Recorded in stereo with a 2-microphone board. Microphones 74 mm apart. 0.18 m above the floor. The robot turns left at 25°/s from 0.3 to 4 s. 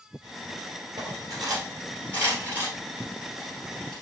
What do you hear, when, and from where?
1.0 s cutlery clinking: 60° right (ahead or behind), 2.5 m; by 4.0 s 5° left (ahead or behind), 2.5 m